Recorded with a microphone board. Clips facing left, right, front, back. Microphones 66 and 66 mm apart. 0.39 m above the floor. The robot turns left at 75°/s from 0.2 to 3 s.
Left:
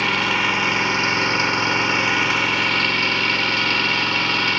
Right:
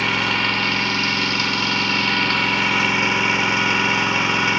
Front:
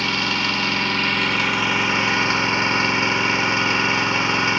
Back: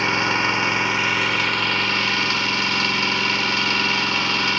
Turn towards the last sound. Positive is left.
turn(degrees=-35)